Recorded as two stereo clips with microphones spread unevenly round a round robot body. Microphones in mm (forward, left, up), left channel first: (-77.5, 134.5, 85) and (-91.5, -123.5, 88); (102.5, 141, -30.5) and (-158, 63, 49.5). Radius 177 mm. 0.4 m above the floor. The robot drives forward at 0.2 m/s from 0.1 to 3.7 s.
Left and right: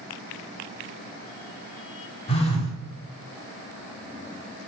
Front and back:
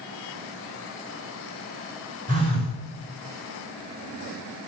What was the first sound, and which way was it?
A phone buzzing, 130° left.